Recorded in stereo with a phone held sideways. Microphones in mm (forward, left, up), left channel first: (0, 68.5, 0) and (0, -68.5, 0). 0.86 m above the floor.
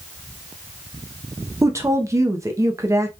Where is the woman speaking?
20° right (ahead or behind), 0.6 m.